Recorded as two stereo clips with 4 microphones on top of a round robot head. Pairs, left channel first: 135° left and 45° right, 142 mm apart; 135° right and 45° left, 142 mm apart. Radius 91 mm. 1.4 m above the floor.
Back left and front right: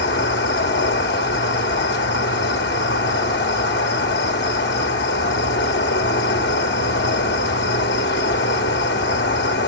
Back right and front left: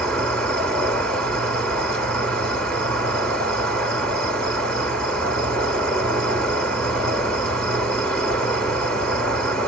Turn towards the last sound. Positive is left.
turn(degrees=145)